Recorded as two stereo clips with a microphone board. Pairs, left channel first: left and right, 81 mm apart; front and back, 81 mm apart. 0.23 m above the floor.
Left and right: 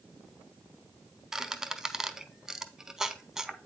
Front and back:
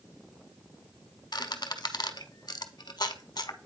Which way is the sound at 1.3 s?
5° right.